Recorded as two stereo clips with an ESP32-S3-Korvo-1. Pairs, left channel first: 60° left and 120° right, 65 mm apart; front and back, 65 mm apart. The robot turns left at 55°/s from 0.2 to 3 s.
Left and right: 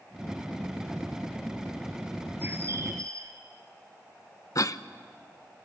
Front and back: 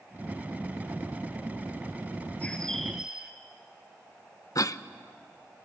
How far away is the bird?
About 2 m.